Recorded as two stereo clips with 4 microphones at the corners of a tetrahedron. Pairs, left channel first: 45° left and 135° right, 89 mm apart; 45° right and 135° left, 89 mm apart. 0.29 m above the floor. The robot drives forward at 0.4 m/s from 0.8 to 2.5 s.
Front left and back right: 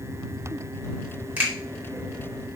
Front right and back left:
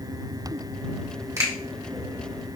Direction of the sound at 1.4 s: 165° left.